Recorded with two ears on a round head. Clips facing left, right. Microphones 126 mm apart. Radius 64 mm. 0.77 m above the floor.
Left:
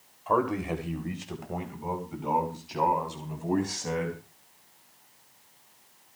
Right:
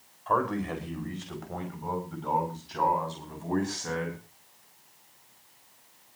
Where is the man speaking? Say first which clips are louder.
Left 1 dB; 15° left (ahead or behind), 3.5 m.